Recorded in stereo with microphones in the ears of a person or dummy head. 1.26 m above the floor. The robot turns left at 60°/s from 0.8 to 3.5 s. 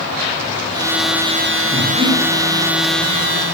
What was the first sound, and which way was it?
Breathing, 30° right (ahead or behind).